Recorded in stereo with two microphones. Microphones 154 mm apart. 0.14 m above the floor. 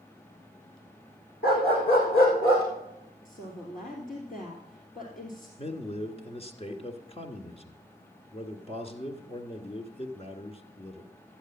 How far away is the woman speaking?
About 2.5 m.